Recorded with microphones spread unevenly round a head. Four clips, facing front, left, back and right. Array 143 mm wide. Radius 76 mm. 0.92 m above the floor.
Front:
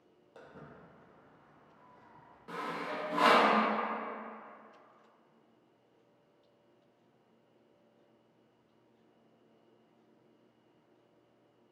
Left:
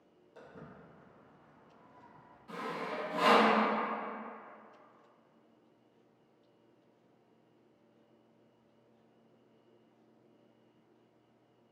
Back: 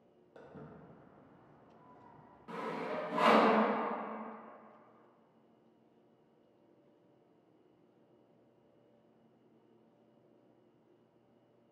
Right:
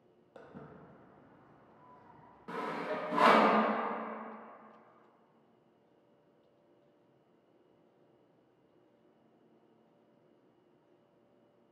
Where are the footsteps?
50° right, 1.2 m; by 2.4 s 155° right, 1.9 m.